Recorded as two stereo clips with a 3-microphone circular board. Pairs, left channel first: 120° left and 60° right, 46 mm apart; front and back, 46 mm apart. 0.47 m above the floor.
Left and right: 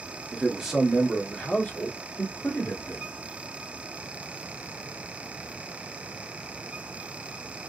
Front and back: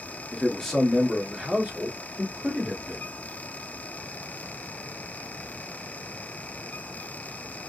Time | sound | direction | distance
0.3 | a man speaking | 35° right | 1.0 m